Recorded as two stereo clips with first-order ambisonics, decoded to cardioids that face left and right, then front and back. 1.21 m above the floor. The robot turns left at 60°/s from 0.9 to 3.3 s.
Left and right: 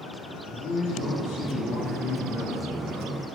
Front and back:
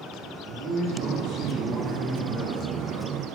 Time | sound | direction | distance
0.5 | a man speaking | 145° left | 1.7 m